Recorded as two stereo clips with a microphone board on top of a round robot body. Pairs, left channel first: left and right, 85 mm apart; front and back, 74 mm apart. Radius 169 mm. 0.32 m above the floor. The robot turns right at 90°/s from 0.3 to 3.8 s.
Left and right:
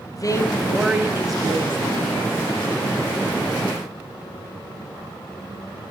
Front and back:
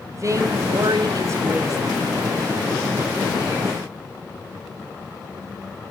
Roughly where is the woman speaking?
Behind left.